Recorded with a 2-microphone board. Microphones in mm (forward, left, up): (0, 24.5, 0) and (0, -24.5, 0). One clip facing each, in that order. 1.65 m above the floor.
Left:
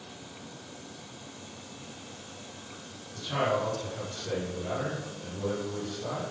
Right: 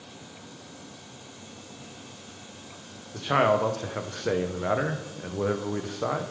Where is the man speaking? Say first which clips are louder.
Right 6 dB; 65° right (ahead or behind), 0.5 m.